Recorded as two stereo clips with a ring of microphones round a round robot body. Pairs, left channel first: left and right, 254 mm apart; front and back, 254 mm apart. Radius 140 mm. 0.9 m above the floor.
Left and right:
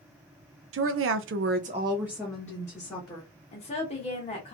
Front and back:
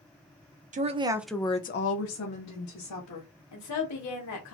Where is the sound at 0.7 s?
120° right, 0.7 m; by 3.3 s 15° left, 1.3 m.